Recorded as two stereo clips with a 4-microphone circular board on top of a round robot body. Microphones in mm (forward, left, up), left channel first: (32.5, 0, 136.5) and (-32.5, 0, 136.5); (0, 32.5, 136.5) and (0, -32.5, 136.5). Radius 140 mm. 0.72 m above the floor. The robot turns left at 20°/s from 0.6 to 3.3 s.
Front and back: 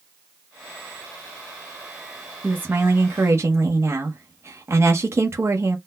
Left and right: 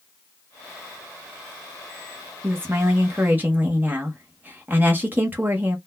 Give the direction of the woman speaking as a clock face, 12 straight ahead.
4 o'clock.